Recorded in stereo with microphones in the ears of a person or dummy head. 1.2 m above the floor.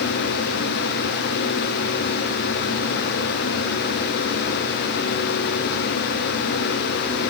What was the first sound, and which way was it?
Only background noise.